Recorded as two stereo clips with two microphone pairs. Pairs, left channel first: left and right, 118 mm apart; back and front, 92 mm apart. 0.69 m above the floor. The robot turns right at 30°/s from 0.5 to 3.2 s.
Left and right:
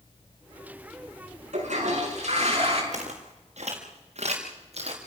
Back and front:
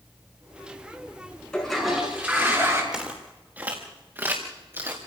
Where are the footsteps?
80° right, 5.5 m; by 5.0 s 60° right, 5 m.